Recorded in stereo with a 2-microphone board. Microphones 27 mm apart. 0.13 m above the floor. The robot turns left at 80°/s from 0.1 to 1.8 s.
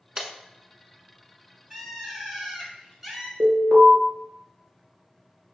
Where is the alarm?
45° right (ahead or behind), 1.5 m.